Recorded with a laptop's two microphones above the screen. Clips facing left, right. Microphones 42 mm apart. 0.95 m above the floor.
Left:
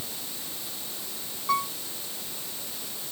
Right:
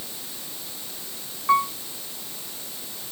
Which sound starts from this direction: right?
A piano, at 1.5 s.